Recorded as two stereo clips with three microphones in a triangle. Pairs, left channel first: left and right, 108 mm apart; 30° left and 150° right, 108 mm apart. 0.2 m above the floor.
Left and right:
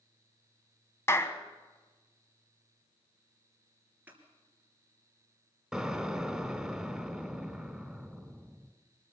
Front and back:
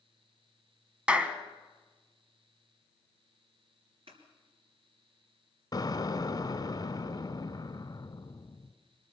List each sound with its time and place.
1.1 s a clap: 140° left, 1.2 m
4.1 s scissors: 160° right, 3.5 m
5.7 s an explosion: 5° right, 1.1 m